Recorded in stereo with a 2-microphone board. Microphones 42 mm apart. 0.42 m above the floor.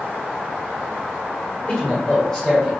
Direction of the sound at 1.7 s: 25° left (ahead or behind).